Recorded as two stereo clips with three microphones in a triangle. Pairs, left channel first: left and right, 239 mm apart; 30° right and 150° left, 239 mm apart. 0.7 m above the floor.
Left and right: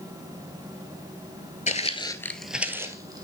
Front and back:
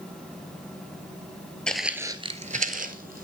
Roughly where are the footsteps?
Ahead left.